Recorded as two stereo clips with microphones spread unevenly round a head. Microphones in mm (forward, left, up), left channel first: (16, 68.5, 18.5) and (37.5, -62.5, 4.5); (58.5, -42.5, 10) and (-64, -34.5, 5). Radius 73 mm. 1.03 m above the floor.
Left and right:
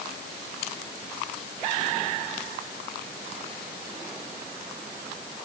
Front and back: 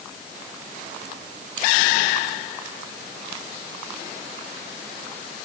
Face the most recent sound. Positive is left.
No sound to turn to.